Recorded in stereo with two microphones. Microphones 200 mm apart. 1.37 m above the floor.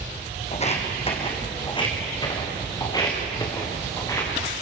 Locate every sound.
0.5 s footsteps: 35° left (ahead or behind), 3 m; by 4.3 s 15° left (ahead or behind), 7.5 m